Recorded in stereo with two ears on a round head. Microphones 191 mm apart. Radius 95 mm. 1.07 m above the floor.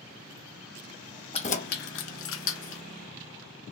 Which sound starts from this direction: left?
Keys jangling, at 1.3 s.